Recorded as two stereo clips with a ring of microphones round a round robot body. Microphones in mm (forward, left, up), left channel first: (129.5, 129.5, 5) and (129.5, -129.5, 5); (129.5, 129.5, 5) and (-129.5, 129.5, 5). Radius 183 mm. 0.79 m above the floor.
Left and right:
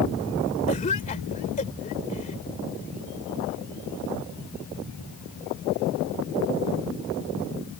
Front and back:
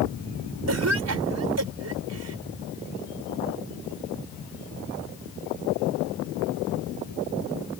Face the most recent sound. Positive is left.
turn(degrees=160)